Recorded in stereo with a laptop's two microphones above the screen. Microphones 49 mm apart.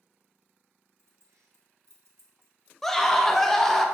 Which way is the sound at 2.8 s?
5° left (ahead or behind).